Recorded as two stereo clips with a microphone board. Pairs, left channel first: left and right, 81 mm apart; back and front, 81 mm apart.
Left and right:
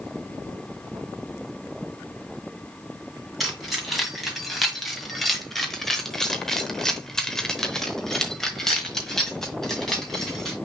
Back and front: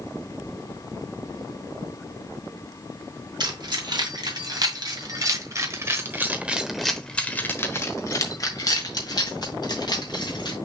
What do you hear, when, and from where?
3.4 s keys jangling: straight ahead, 2.5 m; by 10.6 s 175° left, 2.5 m